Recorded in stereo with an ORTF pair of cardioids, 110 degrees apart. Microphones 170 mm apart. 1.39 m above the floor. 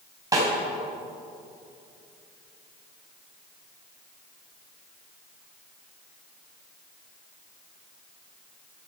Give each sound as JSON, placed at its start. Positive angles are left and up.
{"t": 0.3, "sound": "a snare drum", "azimuth_deg": -20, "distance_m": 4.5}